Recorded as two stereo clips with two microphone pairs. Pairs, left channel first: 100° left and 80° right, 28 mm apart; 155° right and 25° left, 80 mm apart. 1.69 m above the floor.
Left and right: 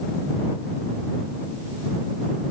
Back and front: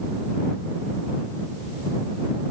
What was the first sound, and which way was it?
Only background noise.